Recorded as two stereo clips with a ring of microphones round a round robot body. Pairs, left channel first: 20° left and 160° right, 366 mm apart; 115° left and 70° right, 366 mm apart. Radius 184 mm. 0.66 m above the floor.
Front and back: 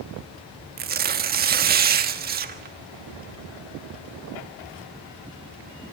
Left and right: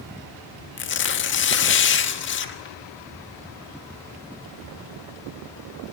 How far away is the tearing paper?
About 1.4 m.